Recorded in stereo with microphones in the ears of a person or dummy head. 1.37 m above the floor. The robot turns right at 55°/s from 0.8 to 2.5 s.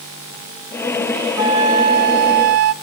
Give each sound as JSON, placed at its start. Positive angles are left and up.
{"t": 1.4, "sound": "a flute", "azimuth_deg": -160, "distance_m": 1.0}